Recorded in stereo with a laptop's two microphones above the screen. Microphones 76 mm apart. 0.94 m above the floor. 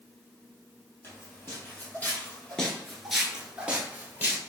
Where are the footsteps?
30° left (ahead or behind), 1.3 m; by 4.4 s 25° right (ahead or behind), 1.1 m.